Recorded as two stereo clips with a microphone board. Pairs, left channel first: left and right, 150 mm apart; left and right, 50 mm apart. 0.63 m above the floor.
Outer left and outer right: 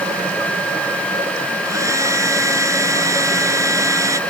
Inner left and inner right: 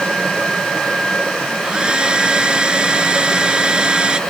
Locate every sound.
1.6 s a hair dryer: 20° right (ahead or behind)